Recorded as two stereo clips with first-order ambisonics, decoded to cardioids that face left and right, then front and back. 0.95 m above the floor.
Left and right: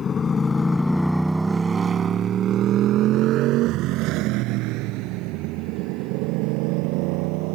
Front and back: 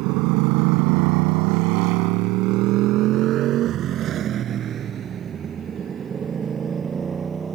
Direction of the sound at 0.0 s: 155° left.